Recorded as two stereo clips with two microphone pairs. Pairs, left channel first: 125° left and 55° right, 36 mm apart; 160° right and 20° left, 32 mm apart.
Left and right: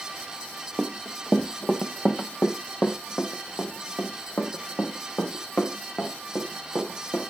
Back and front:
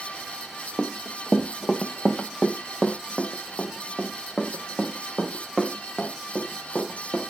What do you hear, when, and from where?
0.8 s running footsteps: 165° left, 0.9 m; by 7.2 s 105° left, 4 m